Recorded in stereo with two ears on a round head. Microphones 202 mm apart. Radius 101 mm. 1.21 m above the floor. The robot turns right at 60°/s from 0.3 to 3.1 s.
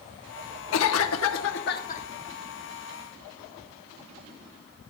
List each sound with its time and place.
0.7 s a cough: 70° left, 1.0 m; by 2.1 s 150° left, 1.0 m